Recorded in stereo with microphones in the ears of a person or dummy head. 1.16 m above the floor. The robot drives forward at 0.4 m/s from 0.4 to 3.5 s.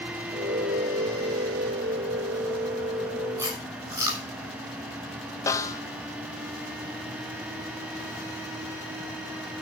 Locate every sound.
3.4 s chewing: 20° right (ahead or behind), 7 m
5.5 s a snare drum: 15° left (ahead or behind), 0.7 m